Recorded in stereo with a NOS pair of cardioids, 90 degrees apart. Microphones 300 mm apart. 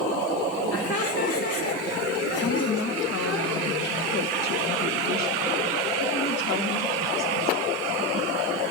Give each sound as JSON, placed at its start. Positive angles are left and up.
{"t": 0.7, "sound": "laughter", "azimuth_deg": 50, "distance_m": 2.0}
{"t": 2.4, "sound": "a woman speaking", "azimuth_deg": 60, "distance_m": 1.5}